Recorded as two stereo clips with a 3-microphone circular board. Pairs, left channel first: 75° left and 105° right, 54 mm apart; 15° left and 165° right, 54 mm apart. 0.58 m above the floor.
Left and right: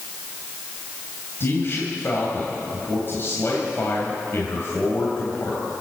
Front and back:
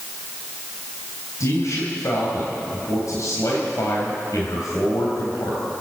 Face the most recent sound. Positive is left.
turn(degrees=30)